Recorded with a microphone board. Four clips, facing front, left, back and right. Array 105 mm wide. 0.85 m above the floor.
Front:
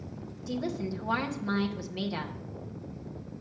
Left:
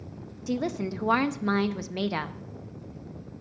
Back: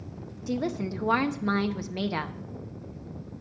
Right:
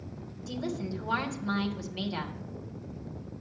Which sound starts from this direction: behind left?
A woman speaking, at 0.5 s.